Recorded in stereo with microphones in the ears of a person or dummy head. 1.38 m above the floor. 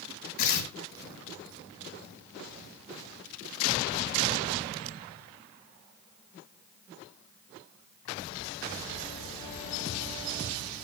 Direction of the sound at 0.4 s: 65° left (ahead or behind).